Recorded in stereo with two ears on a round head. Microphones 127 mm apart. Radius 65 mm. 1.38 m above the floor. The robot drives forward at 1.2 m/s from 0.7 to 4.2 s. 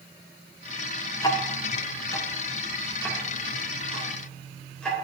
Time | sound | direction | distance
1.2 | ticking | 25° left (ahead or behind) | 0.9 m